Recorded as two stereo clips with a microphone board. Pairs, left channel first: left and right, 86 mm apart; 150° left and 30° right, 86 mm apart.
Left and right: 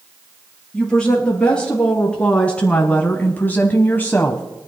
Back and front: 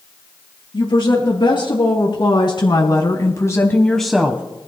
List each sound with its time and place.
0.7 s a woman speaking: 170° left, 3.5 m; by 4.4 s 30° left, 1.1 m